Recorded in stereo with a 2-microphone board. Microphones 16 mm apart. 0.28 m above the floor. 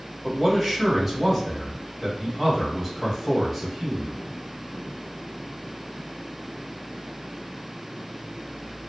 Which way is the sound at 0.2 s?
Centre (ahead or behind).